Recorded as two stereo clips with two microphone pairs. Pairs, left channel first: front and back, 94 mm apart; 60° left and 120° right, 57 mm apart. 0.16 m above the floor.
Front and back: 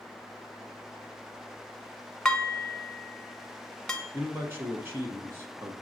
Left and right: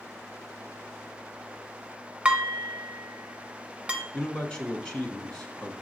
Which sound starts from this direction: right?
Dishes clattering, at 2.2 s.